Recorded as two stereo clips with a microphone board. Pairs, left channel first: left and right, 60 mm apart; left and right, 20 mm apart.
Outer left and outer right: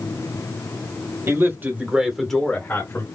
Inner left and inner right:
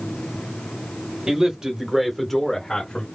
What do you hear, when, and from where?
1.3 s a man speaking: 50° right (ahead or behind), 1.6 m; by 3.0 s 45° left (ahead or behind), 1.5 m